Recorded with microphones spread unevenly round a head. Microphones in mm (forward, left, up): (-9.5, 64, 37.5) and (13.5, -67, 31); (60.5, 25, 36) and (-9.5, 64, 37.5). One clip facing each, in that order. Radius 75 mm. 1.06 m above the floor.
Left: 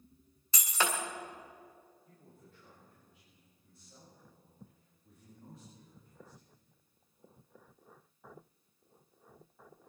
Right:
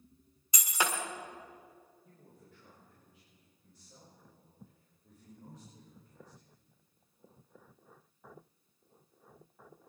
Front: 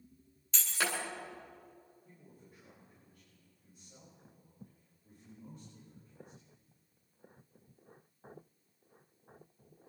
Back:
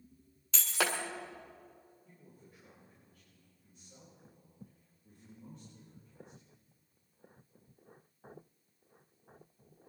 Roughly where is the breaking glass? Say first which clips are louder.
Even, back 2 dB; behind right.